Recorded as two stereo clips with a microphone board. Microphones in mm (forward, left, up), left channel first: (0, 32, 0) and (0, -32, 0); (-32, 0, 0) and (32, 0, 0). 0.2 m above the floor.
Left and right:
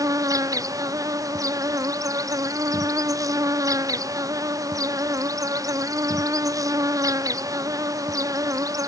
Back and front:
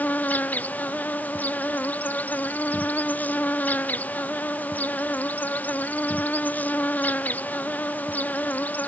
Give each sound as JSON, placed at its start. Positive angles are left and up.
{"t": 0.0, "sound": "an insect", "azimuth_deg": -115}